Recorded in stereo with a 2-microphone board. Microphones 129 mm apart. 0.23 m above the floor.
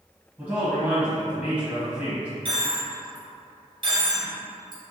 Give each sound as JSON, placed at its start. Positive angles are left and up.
{"t": 0.4, "sound": "a man speaking", "side_deg": -10, "distance_m": 1.2}
{"t": 2.5, "sound": "a dropped coin", "side_deg": -40, "distance_m": 1.7}